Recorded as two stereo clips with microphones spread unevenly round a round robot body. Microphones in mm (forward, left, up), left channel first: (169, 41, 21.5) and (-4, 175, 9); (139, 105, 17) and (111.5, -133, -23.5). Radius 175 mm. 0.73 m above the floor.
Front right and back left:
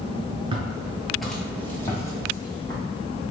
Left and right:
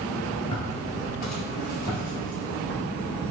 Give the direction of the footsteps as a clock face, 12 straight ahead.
9 o'clock.